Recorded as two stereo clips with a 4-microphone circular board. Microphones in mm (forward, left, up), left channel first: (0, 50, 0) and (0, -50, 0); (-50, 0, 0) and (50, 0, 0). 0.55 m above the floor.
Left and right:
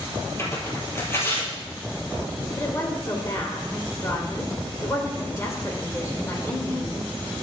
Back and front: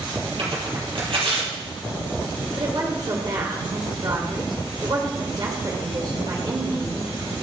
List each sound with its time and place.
0.4 s tearing paper: 25° left, 4 m
2.6 s a woman speaking: 35° left, 2 m